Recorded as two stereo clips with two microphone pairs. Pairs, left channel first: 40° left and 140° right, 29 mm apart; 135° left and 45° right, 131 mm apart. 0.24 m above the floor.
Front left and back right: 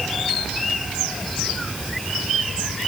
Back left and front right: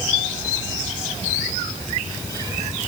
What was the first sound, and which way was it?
Only background noise.